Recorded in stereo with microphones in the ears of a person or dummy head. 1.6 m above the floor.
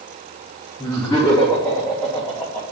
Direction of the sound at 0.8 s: 15° left (ahead or behind).